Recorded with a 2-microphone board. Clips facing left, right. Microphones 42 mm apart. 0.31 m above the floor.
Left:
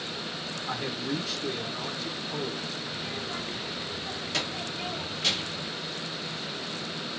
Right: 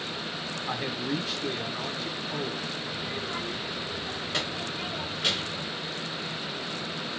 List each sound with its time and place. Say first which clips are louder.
0.7 s a man speaking: right 1 dB; 25° right (ahead or behind), 2 m
2.9 s a child speaking: right 2 dB; 20° right (ahead or behind), 2.5 m